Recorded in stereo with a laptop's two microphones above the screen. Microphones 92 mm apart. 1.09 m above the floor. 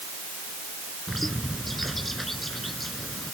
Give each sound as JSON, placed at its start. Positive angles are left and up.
{"t": 1.1, "sound": "a bird", "side_deg": 0}